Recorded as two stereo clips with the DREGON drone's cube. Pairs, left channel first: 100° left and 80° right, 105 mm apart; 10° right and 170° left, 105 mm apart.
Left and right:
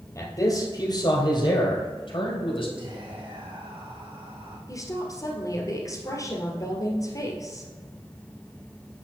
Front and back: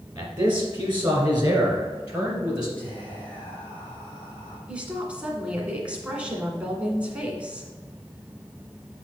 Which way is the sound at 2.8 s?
85° right.